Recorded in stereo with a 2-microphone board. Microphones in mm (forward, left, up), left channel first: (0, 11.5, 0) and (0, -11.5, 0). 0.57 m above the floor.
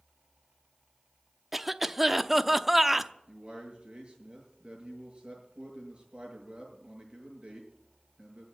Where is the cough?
10° right (ahead or behind), 0.7 m.